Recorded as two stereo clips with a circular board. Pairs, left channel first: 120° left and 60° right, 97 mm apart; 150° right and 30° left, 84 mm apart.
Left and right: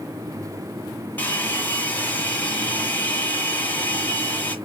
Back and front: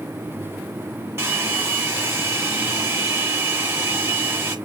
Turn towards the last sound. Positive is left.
turn(degrees=60)